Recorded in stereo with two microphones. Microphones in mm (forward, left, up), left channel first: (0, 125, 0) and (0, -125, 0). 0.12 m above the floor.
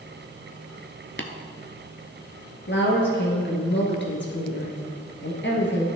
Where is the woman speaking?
50° left (ahead or behind), 1.8 m.